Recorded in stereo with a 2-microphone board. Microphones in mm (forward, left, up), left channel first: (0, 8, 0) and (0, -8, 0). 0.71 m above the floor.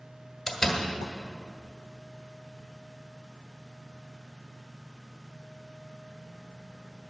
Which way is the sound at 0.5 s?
25° left (ahead or behind).